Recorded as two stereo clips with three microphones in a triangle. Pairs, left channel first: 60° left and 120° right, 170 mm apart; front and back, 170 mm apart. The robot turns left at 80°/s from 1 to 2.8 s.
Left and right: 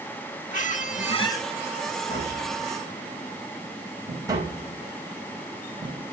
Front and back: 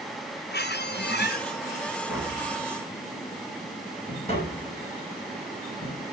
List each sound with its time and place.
0.5 s a squeak: 15° left, 1.1 m; by 1.5 s 20° right, 1.1 m
2.1 s tapping: 5° left, 5 m; by 6.0 s 50° right, 5 m